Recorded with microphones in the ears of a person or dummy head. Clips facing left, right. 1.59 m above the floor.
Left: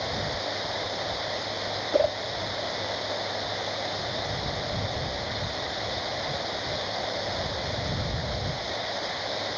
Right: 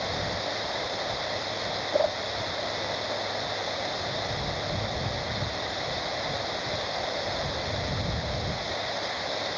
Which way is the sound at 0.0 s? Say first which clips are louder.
Even; centre (ahead or behind).